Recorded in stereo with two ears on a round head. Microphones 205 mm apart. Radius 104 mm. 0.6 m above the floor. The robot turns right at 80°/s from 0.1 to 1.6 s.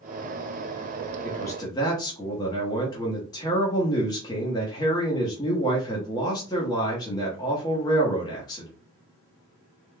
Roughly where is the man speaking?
Centre.